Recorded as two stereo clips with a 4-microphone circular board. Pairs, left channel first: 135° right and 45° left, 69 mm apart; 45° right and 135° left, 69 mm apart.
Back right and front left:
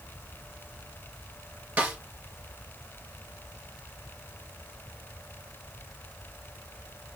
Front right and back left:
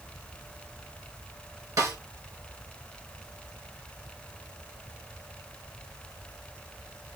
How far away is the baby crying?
I don't hear a baby crying.